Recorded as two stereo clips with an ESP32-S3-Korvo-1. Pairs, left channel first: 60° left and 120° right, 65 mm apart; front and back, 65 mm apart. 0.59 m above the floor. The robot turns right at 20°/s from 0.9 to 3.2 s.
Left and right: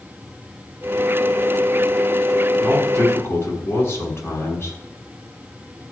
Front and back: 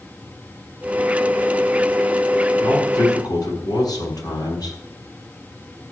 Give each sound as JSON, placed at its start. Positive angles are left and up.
{"t": 2.6, "sound": "a man speaking", "azimuth_deg": 0, "distance_m": 7.0}